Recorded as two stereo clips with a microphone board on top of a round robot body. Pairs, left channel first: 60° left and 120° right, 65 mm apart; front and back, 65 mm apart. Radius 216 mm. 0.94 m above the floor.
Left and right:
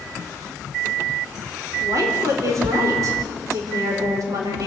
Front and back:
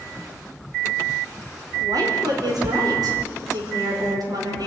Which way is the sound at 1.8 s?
160° right.